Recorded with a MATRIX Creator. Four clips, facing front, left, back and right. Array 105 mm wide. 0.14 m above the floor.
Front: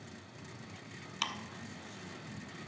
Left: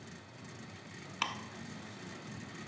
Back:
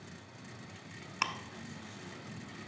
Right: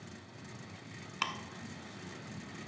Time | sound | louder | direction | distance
1.2 | ticking | even, back 4 dB | 175° right | 0.6 m